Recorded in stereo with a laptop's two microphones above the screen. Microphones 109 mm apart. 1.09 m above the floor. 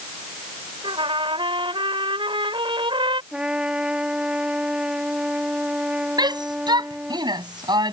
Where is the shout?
40° right (ahead or behind).